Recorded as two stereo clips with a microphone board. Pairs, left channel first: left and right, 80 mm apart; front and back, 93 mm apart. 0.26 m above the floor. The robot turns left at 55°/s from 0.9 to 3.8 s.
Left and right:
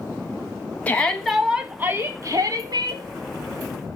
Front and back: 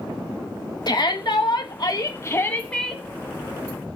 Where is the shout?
25° left, 1.8 m; by 3.0 s 95° right, 1.8 m.